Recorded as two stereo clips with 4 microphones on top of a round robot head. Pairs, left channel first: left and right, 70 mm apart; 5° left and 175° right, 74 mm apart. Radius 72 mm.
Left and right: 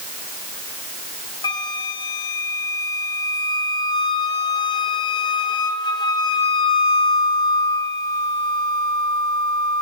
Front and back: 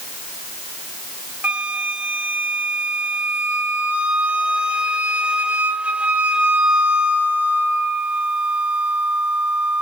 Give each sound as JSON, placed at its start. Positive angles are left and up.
{"t": 1.4, "sound": "a flute", "azimuth_deg": 115, "distance_m": 1.7}